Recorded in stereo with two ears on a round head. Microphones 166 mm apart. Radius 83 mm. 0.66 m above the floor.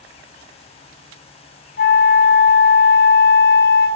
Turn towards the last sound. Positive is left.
turn(degrees=55)  # may be behind; listen again after turning